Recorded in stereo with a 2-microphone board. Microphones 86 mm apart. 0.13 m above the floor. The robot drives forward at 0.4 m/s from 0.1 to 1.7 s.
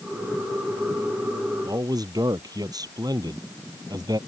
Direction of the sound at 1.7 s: 50° right (ahead or behind).